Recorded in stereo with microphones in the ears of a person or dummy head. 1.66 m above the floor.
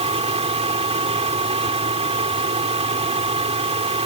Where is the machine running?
25° right (ahead or behind).